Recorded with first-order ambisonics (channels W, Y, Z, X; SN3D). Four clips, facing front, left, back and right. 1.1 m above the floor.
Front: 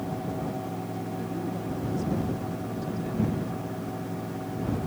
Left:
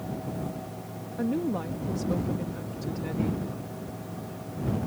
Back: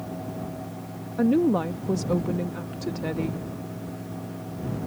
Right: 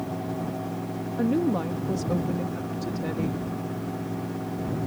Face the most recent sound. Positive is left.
turn(degrees=-165)